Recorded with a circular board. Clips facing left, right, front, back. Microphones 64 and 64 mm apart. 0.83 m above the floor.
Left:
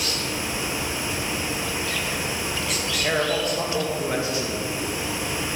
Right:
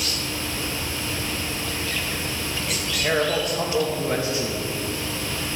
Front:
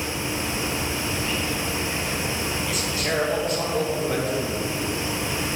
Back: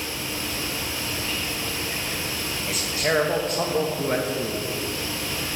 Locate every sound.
2.7 s a man speaking: 175° right, 0.9 m